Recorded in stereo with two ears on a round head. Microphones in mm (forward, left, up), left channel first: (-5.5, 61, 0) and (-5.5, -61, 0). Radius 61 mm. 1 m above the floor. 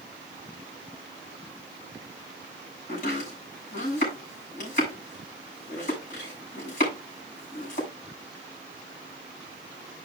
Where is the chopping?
60° left (ahead or behind), 7 m.